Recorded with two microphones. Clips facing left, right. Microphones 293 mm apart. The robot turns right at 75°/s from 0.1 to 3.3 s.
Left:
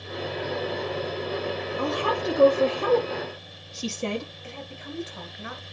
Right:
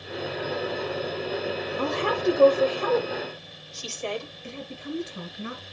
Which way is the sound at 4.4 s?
25° right (ahead or behind).